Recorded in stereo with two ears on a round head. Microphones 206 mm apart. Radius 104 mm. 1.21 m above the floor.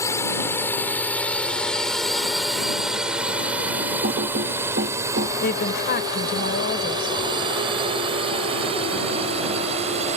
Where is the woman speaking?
45° left (ahead or behind).